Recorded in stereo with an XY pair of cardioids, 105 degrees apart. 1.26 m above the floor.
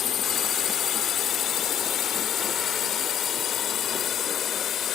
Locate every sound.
0.0 s a drone: 65° left; by 5.0 s 60° left